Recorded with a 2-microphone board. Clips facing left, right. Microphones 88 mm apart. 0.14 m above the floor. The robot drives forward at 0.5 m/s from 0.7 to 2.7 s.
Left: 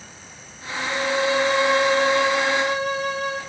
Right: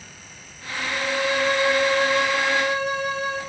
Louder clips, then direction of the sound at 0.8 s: Left 3 dB; 75° left (ahead or behind).